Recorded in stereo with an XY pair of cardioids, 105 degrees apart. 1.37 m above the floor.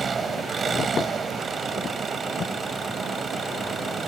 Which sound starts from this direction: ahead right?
An engine running, at 0.0 s.